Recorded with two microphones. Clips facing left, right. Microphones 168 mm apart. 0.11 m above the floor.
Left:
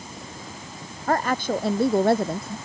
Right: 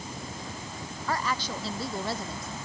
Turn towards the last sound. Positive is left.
turn(degrees=65)  # may be behind; listen again after turning